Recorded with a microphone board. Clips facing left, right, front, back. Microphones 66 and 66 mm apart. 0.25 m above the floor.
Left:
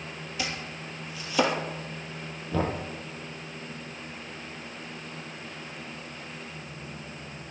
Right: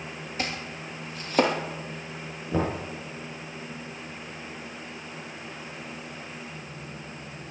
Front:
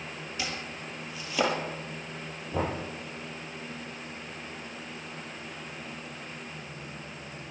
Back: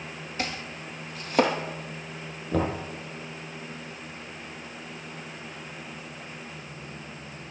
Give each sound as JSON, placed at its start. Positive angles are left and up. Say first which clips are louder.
{"t": 0.4, "sound": "chopping", "louder": "right 2 dB, back 3 dB", "azimuth_deg": -135, "distance_m": 2.5}
{"t": 2.5, "sound": "knocking", "louder": "right 1 dB, back 4 dB", "azimuth_deg": -155, "distance_m": 6.5}